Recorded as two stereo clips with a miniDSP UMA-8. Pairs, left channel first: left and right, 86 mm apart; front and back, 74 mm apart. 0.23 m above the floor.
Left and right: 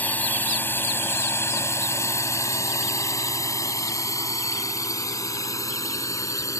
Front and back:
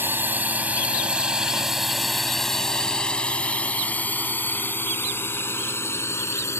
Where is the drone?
145° left; by 6.6 s 45° left.